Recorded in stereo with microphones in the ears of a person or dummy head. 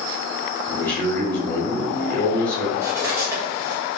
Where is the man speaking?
10° left (ahead or behind), 1.1 m.